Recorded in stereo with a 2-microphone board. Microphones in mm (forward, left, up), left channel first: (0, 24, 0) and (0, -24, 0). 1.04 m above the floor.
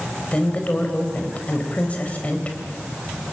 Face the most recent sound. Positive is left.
turn(degrees=25)  # may be behind; listen again after turning